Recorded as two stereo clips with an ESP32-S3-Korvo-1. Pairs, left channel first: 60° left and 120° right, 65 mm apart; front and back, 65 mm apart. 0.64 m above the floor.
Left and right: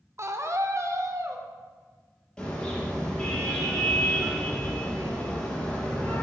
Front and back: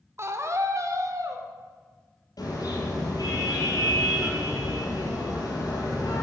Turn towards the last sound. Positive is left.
turn(degrees=-20)